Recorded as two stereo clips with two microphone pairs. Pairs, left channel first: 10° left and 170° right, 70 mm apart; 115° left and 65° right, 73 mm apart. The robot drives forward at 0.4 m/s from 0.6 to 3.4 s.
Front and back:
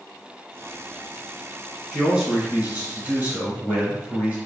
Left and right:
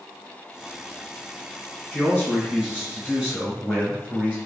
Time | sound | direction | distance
1.9 | a man speaking | 135° left | 1.7 m